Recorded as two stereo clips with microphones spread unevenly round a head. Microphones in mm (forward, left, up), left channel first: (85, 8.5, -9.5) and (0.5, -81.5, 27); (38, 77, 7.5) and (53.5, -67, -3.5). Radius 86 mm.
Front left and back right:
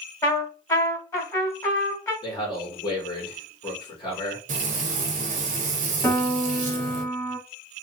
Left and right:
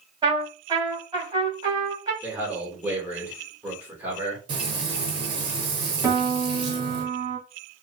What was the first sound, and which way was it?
A trumpet, 20° right.